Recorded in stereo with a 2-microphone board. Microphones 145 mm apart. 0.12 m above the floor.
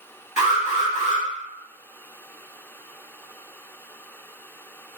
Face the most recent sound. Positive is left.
turn(degrees=-20)  # may be behind; listen again after turning